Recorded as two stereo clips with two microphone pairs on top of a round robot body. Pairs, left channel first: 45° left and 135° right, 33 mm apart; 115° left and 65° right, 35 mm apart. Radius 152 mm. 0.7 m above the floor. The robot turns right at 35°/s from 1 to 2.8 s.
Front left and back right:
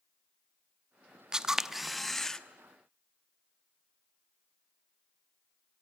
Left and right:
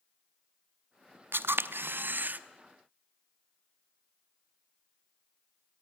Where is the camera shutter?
70° right, 0.9 m; by 2.4 s 30° right, 0.9 m.